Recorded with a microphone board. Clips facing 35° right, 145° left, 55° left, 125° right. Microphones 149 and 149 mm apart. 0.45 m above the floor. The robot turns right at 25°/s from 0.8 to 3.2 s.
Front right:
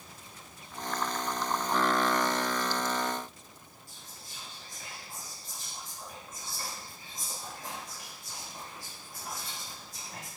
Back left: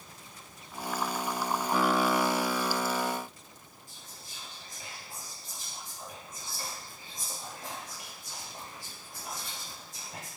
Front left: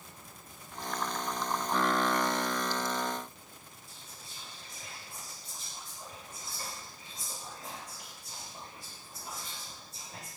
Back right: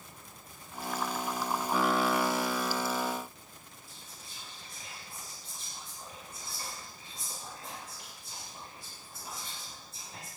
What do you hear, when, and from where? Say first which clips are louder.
3.9 s whispering: back left 1 dB, even; 85° left, 1.8 m